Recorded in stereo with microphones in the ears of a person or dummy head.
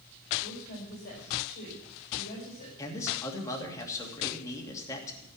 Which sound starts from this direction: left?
A woman speaking, at 0.4 s.